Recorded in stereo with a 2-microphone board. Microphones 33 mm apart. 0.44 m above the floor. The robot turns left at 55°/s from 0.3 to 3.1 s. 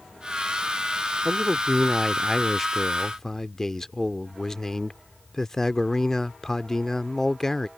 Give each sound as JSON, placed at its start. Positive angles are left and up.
{"t": 1.2, "sound": "a man speaking", "side_deg": -20}